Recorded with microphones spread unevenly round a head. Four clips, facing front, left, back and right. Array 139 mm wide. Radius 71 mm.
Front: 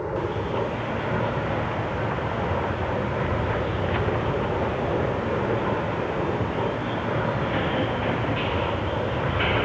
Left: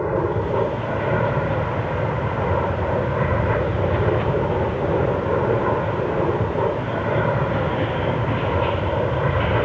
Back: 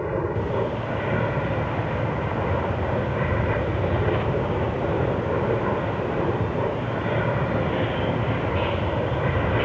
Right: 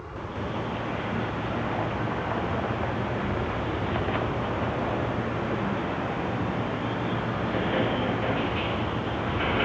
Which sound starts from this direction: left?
An aircraft, at 0.0 s.